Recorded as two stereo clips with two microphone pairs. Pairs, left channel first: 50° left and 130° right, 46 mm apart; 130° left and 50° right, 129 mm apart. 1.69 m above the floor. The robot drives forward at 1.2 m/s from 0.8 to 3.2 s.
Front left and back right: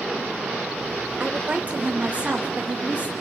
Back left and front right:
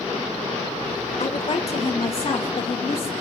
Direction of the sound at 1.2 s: 170° left.